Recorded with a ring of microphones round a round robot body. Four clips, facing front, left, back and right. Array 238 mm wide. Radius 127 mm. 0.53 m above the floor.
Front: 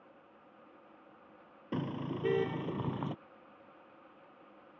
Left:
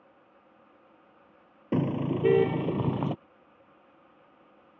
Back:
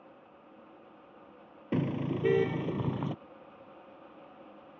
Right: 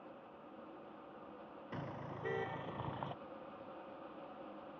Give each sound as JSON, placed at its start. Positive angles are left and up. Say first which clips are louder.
{"t": 1.7, "sound": "a car horn", "louder": "left 19 dB, back 6 dB", "azimuth_deg": 105}